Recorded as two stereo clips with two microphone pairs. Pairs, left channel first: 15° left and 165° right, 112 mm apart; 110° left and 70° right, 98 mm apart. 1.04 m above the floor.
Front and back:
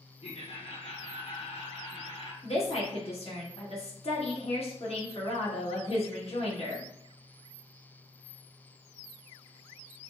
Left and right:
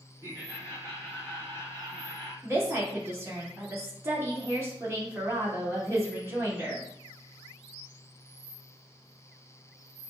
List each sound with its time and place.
0.2 s laughter: 5° right, 2.5 m; by 2.3 s 15° right, 3.5 m
2.4 s a woman speaking: 5° right, 1.8 m